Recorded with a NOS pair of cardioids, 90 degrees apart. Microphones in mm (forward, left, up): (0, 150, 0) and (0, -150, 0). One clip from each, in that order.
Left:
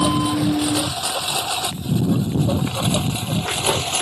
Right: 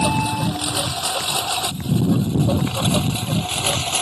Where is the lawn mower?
5° right.